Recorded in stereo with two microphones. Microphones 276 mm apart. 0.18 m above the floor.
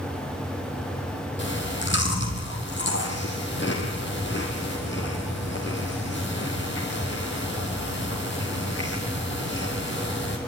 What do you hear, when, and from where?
1.4 s chewing: 45° left (ahead or behind), 3 m